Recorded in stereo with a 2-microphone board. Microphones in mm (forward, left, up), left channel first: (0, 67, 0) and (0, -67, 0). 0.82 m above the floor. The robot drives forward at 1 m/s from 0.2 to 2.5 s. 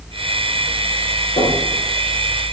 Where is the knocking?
75° left (ahead or behind), 7 m.